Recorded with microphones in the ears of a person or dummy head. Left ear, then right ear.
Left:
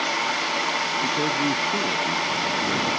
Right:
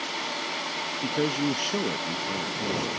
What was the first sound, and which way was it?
A man speaking, 80° right.